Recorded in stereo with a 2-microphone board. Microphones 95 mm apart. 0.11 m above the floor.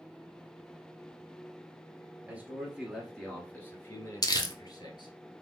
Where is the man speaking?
15° right (ahead or behind), 1.5 m; by 5.2 s 50° left (ahead or behind), 1.7 m.